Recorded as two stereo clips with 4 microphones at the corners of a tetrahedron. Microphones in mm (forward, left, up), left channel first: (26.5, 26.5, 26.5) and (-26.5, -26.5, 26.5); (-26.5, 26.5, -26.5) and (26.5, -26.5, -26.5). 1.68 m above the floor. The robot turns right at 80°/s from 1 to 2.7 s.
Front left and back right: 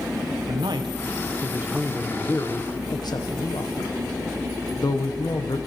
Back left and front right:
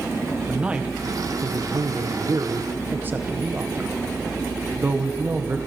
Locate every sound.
0.5 s a man speaking: 120° right, 1.4 m; by 5.6 s 20° left, 1.4 m